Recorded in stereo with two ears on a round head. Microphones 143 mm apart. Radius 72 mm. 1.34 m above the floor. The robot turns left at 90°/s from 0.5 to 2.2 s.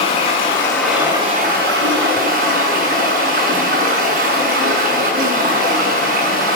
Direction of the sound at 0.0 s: 35° left.